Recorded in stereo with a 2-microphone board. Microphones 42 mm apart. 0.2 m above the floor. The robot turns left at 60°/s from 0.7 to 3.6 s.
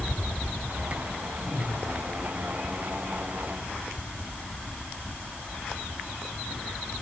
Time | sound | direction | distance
1.4 | a whoosh | centre (ahead or behind) | 4 m